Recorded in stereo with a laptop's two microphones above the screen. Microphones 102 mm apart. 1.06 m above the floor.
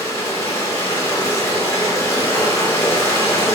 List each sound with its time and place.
0.0 s running water: 25° left (ahead or behind), 0.7 m